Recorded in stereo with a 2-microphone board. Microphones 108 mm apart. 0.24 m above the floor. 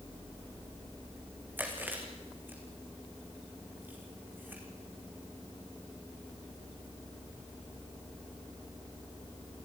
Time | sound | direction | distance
1.6 | chewing | 15° right (ahead or behind) | 3.5 m